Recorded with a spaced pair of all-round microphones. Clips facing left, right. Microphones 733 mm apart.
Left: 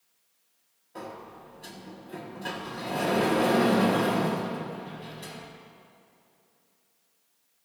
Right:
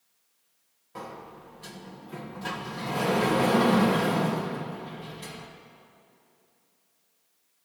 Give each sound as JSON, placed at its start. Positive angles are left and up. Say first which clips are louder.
{"t": 0.9, "sound": "a sliding door", "louder": "left 1 dB", "side_deg": -35, "distance_m": 1.1}